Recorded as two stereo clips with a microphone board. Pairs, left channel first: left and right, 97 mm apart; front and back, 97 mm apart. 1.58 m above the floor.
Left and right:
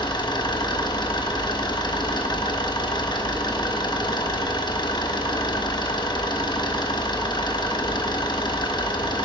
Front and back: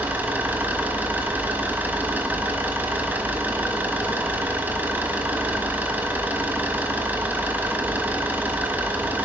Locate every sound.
0.0 s an engine running: 115° left, 1.2 m